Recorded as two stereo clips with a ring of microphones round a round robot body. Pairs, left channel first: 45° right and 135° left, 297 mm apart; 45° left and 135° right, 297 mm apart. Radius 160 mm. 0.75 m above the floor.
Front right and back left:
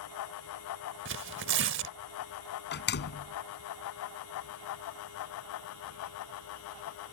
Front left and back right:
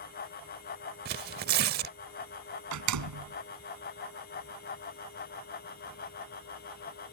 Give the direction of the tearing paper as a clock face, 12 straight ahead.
6 o'clock.